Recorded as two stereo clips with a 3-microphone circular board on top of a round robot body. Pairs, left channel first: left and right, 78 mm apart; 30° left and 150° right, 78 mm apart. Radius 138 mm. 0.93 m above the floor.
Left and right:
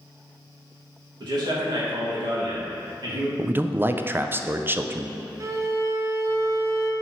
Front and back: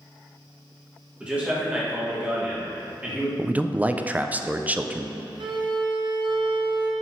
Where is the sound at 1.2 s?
75° right, 2.5 m.